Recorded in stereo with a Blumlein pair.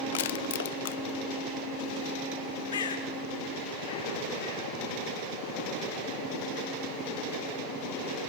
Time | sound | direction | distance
0.1 | crushing | 55° left | 0.8 m
2.7 | a bird | 65° left | 2.5 m